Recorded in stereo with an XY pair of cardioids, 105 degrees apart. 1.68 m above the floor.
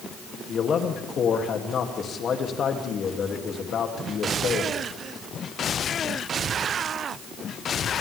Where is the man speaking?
55° left, 3 m.